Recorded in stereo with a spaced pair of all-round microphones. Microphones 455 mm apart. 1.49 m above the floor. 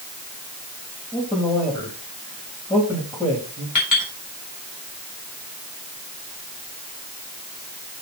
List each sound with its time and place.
1.1 s a man speaking: 10° left (ahead or behind), 3.5 m
3.8 s a clink: 45° left (ahead or behind), 4 m